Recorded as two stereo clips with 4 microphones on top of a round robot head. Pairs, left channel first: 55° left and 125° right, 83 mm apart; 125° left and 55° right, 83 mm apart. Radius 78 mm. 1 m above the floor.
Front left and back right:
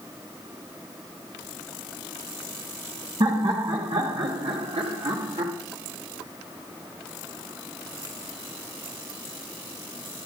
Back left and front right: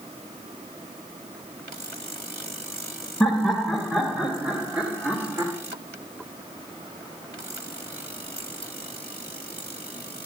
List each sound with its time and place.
3.2 s laughter: 145° right, 2 m; by 5.5 s 110° right, 2.5 m